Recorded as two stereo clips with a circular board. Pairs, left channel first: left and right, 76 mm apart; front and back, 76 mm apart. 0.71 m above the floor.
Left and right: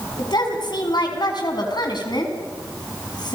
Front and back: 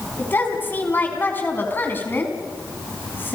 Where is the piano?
I don't hear a piano.